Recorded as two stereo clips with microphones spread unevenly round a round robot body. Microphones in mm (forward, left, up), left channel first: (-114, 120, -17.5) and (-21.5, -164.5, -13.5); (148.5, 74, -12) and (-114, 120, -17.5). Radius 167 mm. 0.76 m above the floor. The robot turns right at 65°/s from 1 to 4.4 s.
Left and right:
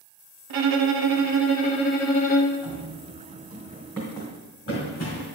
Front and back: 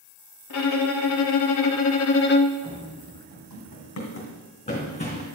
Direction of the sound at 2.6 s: 75° right.